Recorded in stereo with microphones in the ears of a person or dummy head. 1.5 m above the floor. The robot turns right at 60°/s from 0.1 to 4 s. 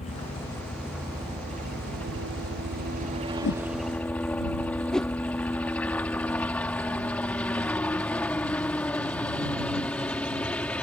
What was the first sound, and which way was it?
A helicopter, 35° left (ahead or behind).